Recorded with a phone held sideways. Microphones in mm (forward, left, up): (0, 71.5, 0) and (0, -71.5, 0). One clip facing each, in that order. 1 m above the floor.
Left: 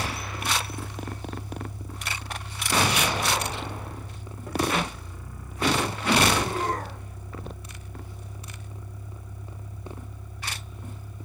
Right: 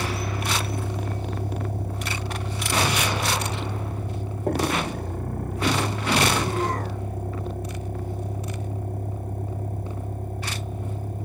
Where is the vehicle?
60° right (ahead or behind); by 11.3 s 50° right (ahead or behind).